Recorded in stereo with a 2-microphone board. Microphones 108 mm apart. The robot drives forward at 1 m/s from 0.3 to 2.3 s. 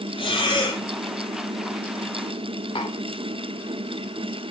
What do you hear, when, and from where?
0.2 s breathing: 50° left (ahead or behind), 3 m; by 0.8 s 45° left (ahead or behind), 3.5 m
2.8 s tapping: 45° left (ahead or behind), 4 m